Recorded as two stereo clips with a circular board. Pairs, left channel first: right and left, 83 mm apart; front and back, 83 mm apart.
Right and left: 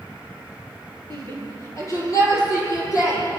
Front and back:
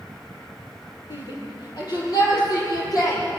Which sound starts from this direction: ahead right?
A shout, at 1.1 s.